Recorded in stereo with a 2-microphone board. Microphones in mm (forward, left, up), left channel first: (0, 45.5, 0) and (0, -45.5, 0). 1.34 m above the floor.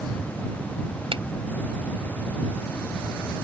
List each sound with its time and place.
1.1 s a finger snap: 75° right (ahead or behind)